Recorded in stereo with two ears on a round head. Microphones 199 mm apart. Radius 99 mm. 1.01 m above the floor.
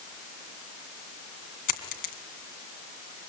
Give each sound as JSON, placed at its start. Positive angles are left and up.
{"t": 1.7, "sound": "a dropped coin", "side_deg": 40, "distance_m": 3.0}